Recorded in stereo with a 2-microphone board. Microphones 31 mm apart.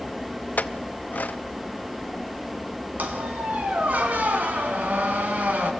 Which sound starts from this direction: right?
A squeak, at 3.0 s.